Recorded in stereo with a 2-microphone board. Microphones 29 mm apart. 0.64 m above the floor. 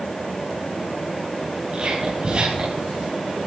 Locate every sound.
1.7 s whispering: 35° right (ahead or behind), 6 m